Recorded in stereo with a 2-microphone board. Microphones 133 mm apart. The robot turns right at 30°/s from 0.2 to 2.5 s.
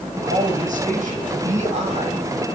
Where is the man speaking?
110° right, 6 m; by 2.2 s 50° right, 6 m.